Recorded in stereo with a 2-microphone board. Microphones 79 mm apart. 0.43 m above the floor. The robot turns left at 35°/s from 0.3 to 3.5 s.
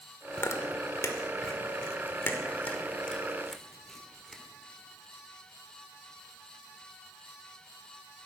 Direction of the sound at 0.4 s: 35° left (ahead or behind).